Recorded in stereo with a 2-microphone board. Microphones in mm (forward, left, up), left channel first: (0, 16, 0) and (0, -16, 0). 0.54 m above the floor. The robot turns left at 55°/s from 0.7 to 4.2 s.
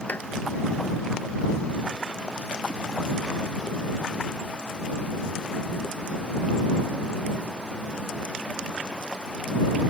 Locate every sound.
0.1 s a clap: 55° left (ahead or behind)